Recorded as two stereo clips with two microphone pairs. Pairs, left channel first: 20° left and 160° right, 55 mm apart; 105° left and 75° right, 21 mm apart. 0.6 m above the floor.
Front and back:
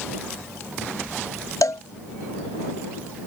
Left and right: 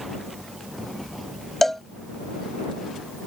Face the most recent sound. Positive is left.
turn(degrees=25)